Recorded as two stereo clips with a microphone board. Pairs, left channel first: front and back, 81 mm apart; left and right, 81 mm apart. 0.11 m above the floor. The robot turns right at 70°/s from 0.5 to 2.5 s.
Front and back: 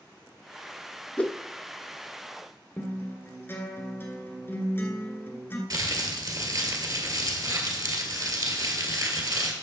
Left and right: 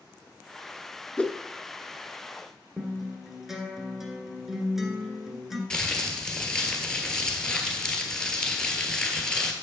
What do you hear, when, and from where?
1.2 s a whoosh: 35° left, 0.6 m; by 1.4 s 50° left, 0.6 m
2.8 s a guitar: 5° right, 1.5 m
5.7 s crumpling: 170° left, 1.6 m